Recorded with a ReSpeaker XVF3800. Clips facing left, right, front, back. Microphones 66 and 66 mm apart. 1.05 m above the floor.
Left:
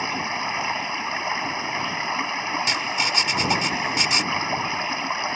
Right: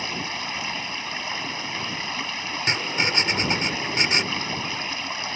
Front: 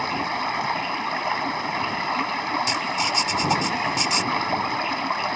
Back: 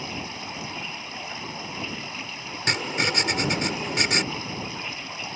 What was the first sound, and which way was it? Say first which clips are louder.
Running water: left 4 dB, front 10 dB; 30° left.